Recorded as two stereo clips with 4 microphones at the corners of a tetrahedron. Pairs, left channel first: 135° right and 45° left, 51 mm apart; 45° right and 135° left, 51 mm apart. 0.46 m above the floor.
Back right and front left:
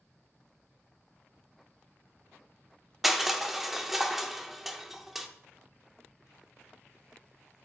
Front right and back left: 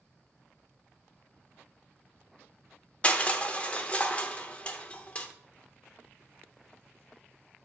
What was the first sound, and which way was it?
Crushing, 35° right.